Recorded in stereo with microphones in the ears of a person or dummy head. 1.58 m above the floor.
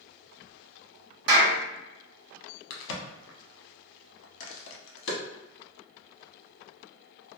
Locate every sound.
1.3 s a clap: 55° right (ahead or behind), 1.3 m
2.7 s a crack: 80° left, 0.7 m